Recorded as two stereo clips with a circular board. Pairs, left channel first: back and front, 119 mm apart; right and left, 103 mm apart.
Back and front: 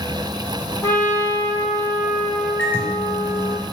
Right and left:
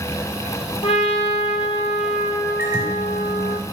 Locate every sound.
0.8 s a trumpet: 110° right, 1.0 m
2.6 s a microwave: 115° left, 1.3 m